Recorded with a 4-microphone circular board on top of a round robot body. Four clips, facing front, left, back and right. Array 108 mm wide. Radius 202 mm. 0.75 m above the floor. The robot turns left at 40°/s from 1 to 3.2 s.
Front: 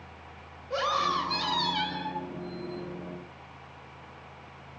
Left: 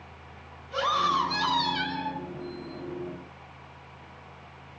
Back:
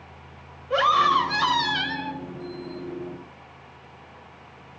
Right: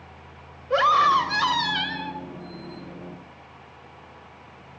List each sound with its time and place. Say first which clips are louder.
0.7 s a scream: right 8 dB, back 9 dB; 115° right, 5.5 m; by 2.2 s 160° right, 5.5 m